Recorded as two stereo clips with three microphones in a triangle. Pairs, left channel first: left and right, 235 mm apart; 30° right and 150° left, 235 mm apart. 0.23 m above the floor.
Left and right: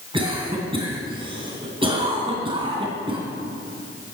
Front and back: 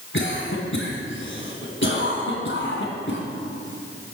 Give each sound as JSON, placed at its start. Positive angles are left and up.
{"t": 0.1, "sound": "a cough", "azimuth_deg": -25, "distance_m": 2.5}